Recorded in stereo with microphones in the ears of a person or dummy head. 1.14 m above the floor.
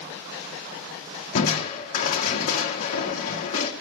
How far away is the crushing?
About 1.1 m.